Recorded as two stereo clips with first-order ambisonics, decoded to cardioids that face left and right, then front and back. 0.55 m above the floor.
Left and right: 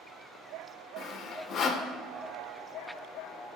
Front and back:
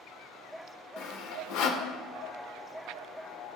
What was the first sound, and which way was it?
Sawing, 25° left.